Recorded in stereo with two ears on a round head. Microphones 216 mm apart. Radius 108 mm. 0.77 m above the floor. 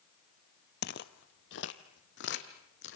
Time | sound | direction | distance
0.8 | footsteps | 45° left (ahead or behind) | 1.0 m